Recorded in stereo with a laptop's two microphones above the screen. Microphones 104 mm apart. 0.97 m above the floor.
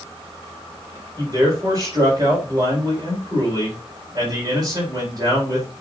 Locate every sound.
1.2 s a man speaking: 40° right (ahead or behind), 4 m